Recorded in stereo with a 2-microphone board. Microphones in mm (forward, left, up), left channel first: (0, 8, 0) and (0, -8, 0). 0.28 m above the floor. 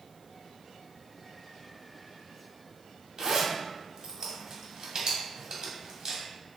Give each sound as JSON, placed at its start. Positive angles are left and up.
{"t": 3.2, "sound": "a zipper", "side_deg": -45, "distance_m": 1.3}